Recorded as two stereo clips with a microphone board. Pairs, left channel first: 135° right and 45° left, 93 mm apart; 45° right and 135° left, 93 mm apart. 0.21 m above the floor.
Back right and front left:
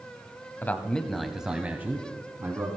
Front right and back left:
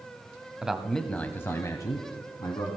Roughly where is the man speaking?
Behind.